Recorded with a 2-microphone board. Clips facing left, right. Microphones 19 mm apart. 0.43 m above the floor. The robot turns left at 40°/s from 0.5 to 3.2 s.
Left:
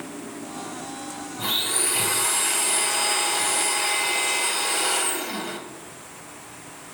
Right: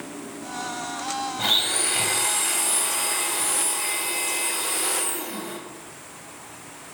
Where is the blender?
140° right, 2 m; by 5.6 s 145° left, 2 m.